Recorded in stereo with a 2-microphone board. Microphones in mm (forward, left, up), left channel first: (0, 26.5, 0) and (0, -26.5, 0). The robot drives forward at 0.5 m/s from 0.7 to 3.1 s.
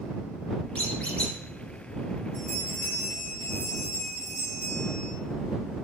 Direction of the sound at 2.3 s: 60° left (ahead or behind).